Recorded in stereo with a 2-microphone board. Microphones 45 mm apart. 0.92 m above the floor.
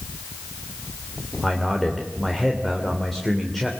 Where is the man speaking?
5° left (ahead or behind), 3 m.